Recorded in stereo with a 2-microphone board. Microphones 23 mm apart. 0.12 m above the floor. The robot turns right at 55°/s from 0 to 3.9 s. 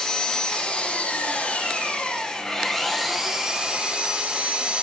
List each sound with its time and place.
0.0 s an engine running: 15° left, 4.5 m; by 4.8 s 130° right, 4.5 m